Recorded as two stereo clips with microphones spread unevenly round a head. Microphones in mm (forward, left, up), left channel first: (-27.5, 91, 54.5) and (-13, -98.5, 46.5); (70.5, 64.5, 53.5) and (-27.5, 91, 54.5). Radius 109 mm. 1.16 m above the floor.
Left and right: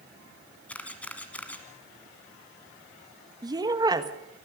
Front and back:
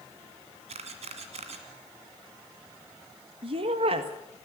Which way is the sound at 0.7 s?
175° left.